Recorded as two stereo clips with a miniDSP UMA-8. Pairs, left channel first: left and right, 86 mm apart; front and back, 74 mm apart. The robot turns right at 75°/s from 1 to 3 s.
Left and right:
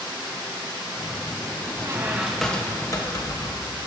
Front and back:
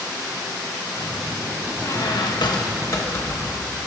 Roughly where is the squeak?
Ahead right.